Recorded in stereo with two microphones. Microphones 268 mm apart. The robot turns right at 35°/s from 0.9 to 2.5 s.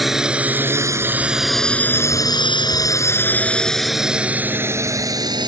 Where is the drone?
Centre (ahead or behind); by 5.5 s 15° right (ahead or behind).